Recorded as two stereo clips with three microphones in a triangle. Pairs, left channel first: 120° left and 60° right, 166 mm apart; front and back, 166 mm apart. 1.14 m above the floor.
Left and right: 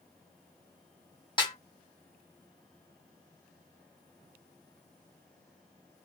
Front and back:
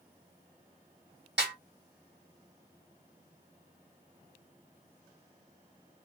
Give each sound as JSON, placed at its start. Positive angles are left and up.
{"t": 1.4, "sound": "a snare drum", "azimuth_deg": 180, "distance_m": 1.6}